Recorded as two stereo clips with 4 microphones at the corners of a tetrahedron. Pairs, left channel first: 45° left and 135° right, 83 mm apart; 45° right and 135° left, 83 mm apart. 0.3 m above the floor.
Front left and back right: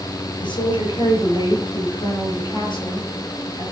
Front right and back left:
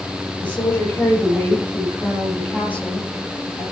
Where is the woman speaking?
25° left, 9 m.